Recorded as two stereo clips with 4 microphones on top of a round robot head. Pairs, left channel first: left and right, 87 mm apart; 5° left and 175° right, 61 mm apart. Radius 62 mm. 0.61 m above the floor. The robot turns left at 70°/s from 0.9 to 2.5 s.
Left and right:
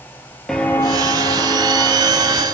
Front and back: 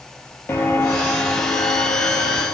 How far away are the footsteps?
About 0.6 m.